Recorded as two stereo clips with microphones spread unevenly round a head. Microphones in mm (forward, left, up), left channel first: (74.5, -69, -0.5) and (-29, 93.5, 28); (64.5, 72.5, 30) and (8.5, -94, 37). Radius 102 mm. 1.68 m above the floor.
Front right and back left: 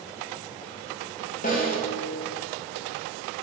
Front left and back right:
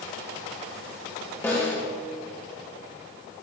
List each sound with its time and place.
1.4 s a snare drum: 5° right, 2 m